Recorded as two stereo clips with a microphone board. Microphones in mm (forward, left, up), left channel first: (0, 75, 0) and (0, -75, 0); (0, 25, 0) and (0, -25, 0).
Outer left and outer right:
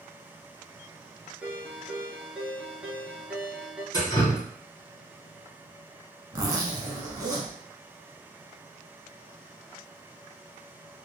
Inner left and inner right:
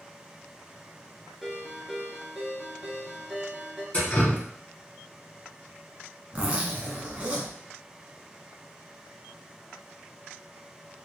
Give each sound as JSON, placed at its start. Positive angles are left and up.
{"t": 1.4, "sound": "a ringtone", "side_deg": -5, "distance_m": 1.0}
{"t": 3.9, "sound": "dripping", "side_deg": 25, "distance_m": 1.4}
{"t": 6.3, "sound": "a zipper", "side_deg": -25, "distance_m": 0.9}